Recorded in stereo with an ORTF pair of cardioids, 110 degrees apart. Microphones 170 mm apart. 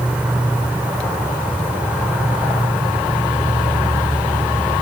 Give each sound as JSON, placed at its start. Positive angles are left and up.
{"t": 0.0, "sound": "an insect", "azimuth_deg": -10}